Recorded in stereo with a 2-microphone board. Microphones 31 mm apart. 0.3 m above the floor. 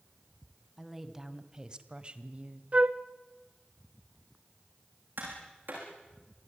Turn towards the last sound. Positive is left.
turn(degrees=-85)